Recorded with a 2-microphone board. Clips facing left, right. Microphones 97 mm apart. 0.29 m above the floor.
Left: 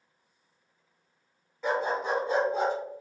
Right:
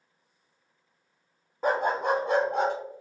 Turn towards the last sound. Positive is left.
turn(degrees=-65)  # may be behind; listen again after turning